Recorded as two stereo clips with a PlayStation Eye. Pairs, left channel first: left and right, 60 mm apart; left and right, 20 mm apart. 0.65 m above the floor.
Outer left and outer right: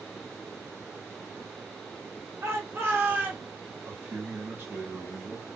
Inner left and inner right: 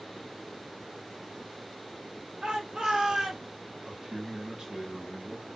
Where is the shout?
55° right (ahead or behind), 1.3 m; by 3.5 s 25° right (ahead or behind), 1.1 m.